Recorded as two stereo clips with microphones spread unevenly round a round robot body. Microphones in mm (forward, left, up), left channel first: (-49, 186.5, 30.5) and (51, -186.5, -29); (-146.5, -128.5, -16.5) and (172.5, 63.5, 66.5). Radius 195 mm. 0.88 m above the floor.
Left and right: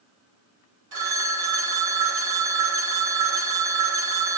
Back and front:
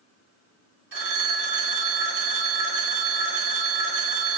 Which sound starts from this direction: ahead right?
A phone ringing, at 0.9 s.